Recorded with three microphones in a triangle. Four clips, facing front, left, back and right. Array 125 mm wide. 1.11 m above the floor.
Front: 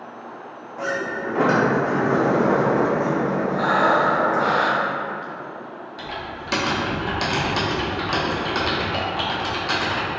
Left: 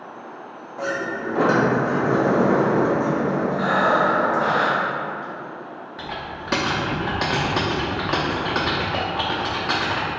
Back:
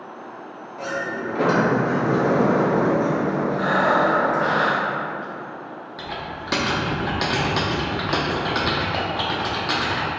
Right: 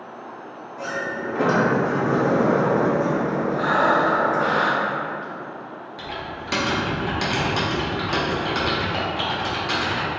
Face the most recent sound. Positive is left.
turn(degrees=115)